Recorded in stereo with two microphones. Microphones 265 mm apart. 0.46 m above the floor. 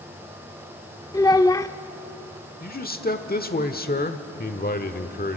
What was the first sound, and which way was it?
A child speaking, 15° left (ahead or behind).